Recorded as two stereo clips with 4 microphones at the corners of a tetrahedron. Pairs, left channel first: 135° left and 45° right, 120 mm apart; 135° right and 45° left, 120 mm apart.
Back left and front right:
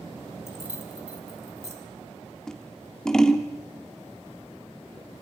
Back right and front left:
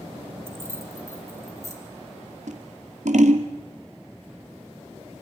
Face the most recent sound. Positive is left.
turn(degrees=50)